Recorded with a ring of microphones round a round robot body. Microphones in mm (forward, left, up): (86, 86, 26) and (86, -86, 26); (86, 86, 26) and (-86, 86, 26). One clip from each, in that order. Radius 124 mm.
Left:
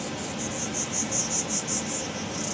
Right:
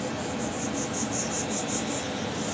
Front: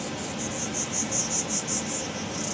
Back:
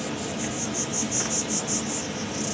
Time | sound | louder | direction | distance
0.0 | an insect | right 2 dB, back 2 dB | 90° left | 1.2 m